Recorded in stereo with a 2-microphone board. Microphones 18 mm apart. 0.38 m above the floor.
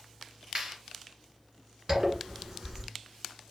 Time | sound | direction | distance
0.6 | a clap | 50° right (ahead or behind) | 2 m
1.9 | a zipper | 30° right (ahead or behind) | 1.2 m